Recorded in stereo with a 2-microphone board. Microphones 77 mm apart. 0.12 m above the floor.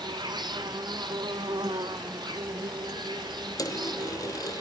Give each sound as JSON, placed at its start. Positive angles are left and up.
{"t": 0.0, "sound": "an insect", "side_deg": -75, "distance_m": 1.3}
{"t": 3.6, "sound": "a dropped coin", "side_deg": 50, "distance_m": 1.4}